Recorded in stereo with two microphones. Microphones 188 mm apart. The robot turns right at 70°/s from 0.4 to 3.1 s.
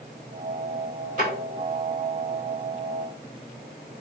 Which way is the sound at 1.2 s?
50° right (ahead or behind).